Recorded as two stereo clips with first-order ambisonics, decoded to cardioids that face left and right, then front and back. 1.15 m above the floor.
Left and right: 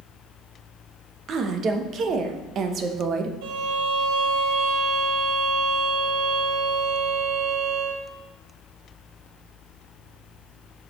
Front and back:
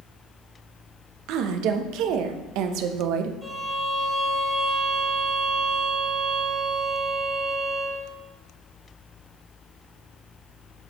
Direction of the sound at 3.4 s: 95° right.